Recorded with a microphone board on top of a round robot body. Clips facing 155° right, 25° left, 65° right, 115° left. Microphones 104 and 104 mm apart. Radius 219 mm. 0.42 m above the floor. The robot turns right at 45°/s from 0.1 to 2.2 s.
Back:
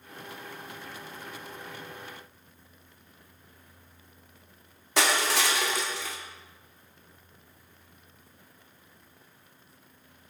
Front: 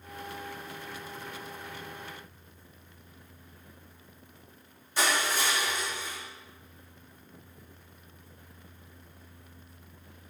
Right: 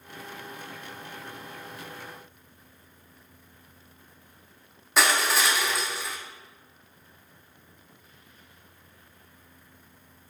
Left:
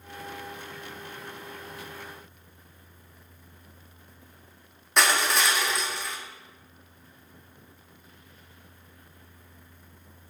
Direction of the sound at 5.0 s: 155° right.